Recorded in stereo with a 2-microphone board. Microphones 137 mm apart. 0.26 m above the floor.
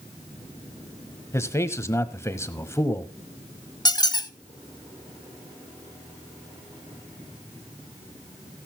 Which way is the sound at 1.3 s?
20° left (ahead or behind).